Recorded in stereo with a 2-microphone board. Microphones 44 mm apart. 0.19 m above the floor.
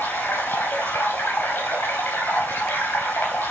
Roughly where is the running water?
Left.